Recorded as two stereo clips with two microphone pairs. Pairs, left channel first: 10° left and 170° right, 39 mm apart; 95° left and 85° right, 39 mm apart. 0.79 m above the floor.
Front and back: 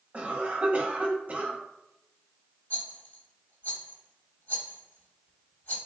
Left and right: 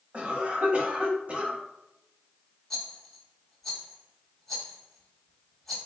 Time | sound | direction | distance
0.1 | a cough | 135° right | 1.3 m
2.7 | a rattle | 10° left | 1.4 m